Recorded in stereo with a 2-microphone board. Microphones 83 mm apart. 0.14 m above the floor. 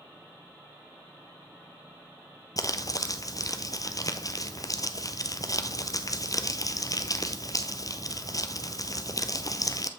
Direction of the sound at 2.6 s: 45° left (ahead or behind).